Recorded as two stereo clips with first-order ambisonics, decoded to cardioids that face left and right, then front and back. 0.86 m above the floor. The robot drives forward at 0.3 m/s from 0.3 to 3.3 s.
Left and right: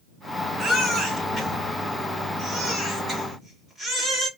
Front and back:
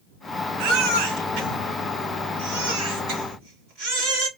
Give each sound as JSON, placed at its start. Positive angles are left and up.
{"t": 0.6, "sound": "a baby crying", "azimuth_deg": -170, "distance_m": 3.0}